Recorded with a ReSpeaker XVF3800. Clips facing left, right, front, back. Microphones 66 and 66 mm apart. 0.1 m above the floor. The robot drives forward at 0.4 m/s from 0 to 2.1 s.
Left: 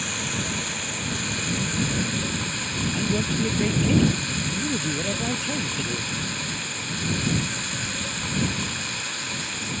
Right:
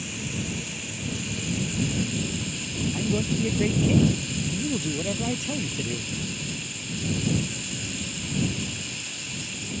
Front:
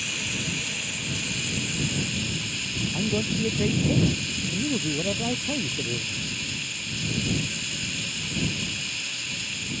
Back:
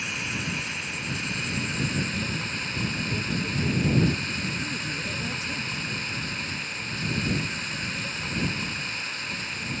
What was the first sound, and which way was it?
Running water, 115° left.